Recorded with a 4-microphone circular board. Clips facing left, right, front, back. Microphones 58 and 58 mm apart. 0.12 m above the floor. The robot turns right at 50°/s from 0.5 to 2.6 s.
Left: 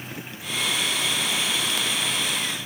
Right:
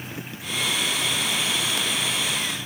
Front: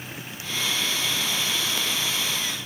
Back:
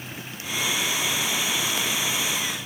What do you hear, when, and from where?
Only background noise.